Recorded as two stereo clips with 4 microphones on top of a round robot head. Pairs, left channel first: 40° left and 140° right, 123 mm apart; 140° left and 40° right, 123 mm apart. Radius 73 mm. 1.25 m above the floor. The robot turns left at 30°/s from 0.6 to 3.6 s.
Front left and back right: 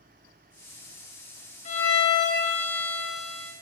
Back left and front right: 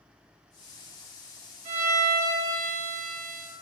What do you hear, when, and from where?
1.6 s a violin: straight ahead, 1.7 m; by 3.5 s 55° right, 1.7 m